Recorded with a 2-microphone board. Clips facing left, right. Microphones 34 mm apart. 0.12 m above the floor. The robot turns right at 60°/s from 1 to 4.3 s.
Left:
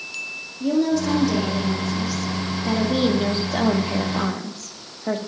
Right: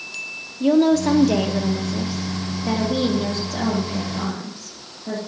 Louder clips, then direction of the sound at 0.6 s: Right 4 dB; 105° right.